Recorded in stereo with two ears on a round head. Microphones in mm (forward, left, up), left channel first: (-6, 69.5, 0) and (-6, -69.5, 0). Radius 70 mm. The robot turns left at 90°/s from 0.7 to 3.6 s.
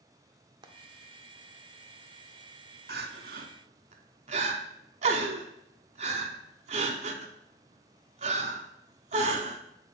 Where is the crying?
65° right (ahead or behind), 0.7 m; by 9.6 s 45° right (ahead or behind), 0.7 m.